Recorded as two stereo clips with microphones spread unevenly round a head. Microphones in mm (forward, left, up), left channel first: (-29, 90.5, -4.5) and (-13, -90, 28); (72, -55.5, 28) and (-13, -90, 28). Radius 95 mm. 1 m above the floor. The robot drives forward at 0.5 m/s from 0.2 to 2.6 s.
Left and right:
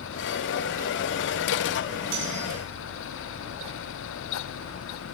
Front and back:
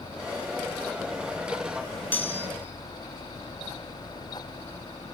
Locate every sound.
2.1 s cutlery clinking: 50° right, 7.5 m